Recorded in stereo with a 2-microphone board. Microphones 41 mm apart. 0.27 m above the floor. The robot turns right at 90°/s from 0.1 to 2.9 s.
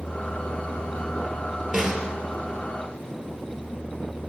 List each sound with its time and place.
1.7 s a snare drum: 5° right, 2 m; by 2.1 s 30° left, 2 m